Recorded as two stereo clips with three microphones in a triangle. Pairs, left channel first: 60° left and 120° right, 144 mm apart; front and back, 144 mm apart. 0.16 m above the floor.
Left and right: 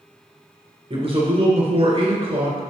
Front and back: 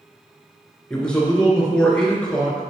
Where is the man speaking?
80° right, 2 m.